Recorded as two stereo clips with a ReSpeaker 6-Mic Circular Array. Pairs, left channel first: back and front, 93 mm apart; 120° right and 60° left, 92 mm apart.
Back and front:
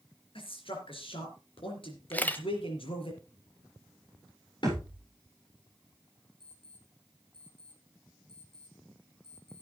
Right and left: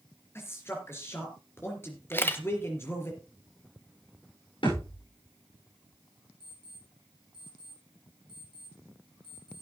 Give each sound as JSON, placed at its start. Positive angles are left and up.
{"t": 0.3, "sound": "a man speaking", "azimuth_deg": 175, "distance_m": 4.0}
{"t": 2.1, "sound": "a camera shutter", "azimuth_deg": -140, "distance_m": 1.1}
{"t": 4.6, "sound": "a thud", "azimuth_deg": -145, "distance_m": 9.0}
{"t": 6.4, "sound": "an alarm clock", "azimuth_deg": -155, "distance_m": 7.0}